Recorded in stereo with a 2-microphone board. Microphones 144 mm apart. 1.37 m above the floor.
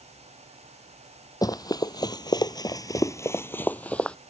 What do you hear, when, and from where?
1.4 s running footsteps: 25° left (ahead or behind); by 4.2 s 10° left (ahead or behind)